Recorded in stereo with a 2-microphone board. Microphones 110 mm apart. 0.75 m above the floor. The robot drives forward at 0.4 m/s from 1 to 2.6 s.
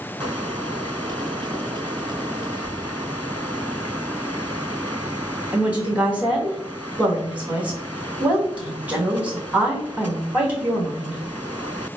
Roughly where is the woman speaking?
Centre.